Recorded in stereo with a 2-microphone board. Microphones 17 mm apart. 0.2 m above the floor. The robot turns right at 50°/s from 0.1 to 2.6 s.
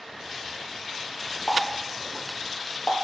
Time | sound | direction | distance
1.5 | a running tap | 35° left (ahead or behind) | 3.5 m